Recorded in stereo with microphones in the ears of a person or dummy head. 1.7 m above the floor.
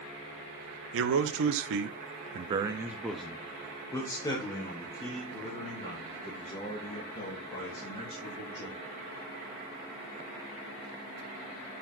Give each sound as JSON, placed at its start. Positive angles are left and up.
{"t": 0.9, "sound": "a man speaking", "side_deg": -75, "distance_m": 0.9}